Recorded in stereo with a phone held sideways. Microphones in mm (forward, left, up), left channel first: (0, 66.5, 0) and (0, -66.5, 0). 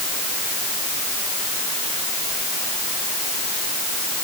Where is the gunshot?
I don't hear a gunshot.